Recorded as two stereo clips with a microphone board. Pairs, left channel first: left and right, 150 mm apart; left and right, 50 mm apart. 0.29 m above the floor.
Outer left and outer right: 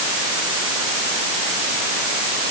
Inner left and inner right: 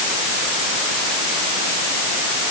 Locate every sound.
Only background noise.